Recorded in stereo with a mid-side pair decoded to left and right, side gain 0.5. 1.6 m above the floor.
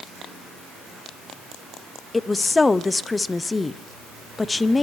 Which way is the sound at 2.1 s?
20° left.